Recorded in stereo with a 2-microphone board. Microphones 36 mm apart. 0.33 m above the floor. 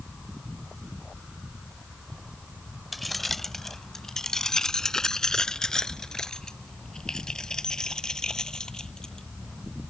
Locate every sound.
2.9 s keys jangling: centre (ahead or behind); by 9.3 s 15° left (ahead or behind)